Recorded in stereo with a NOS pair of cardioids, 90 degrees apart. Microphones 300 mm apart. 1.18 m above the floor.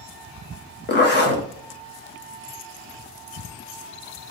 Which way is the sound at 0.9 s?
35° left.